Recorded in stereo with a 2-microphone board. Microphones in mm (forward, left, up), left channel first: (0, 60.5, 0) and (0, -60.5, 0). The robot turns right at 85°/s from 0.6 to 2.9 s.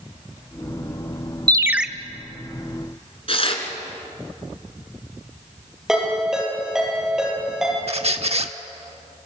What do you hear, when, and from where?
1.5 s a ringtone: 35° right, 0.6 m; by 1.9 s 5° right, 0.6 m
3.3 s tearing paper: 50° left (ahead or behind), 2.5 m
5.9 s a ringtone: 5° right (ahead or behind), 8.5 m
7.9 s a squeak: 60° right (ahead or behind), 1.0 m